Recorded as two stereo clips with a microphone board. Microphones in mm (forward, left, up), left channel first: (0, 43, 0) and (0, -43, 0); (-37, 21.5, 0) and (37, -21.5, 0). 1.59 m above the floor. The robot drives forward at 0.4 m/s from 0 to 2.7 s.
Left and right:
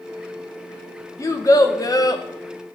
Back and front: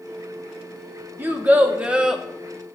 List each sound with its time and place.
1.2 s a child speaking: 40° left, 1.2 m; by 2.2 s 55° left, 1.0 m